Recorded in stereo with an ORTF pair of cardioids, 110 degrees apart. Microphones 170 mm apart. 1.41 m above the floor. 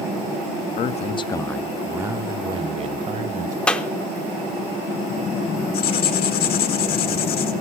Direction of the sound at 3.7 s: 5° left.